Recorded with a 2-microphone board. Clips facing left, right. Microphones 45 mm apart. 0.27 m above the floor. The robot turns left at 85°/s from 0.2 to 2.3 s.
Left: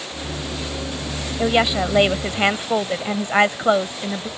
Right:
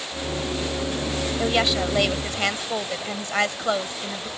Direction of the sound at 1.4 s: 15° left (ahead or behind).